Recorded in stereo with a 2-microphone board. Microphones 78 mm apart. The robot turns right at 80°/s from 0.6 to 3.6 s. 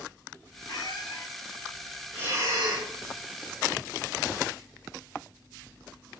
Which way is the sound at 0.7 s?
95° left.